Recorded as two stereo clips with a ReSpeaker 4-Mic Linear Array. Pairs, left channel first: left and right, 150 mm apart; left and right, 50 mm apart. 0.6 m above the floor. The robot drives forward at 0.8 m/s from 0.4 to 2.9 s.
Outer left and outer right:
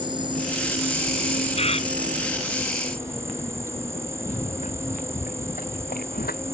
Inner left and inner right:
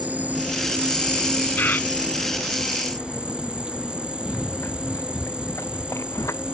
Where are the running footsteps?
45° left (ahead or behind); by 6.4 s 80° left.